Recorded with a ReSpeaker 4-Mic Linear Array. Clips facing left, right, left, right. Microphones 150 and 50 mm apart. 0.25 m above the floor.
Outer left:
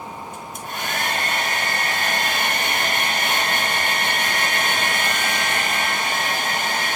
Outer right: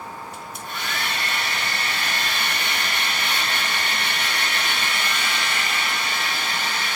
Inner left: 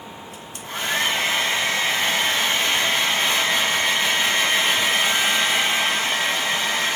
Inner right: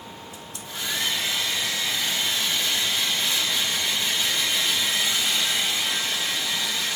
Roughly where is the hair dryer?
Left.